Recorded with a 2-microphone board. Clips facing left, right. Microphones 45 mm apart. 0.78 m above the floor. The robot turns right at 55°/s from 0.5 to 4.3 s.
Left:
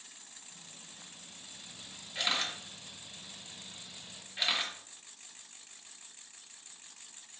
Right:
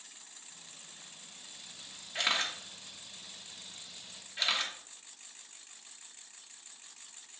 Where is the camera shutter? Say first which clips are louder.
Right 2 dB; 70° right (ahead or behind), 1.0 m; by 4.7 s 10° left (ahead or behind), 1.0 m.